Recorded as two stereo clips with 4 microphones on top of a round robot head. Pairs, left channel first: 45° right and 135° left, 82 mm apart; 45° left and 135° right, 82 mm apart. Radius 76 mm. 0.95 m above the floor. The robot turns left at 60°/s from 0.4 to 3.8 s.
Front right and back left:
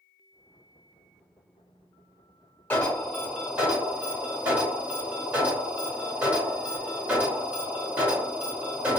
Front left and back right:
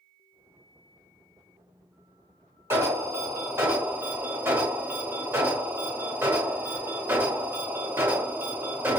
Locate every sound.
2.7 s an alarm: 110° right, 1.7 m; by 9.0 s 175° right, 1.7 m